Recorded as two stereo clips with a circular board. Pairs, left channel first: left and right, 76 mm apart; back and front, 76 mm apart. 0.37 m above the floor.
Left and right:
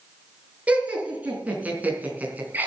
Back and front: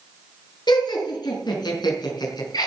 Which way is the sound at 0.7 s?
160° right.